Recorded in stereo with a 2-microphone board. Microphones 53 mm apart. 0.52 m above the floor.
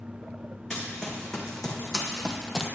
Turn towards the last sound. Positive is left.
turn(degrees=-5)  # may be behind; listen again after turning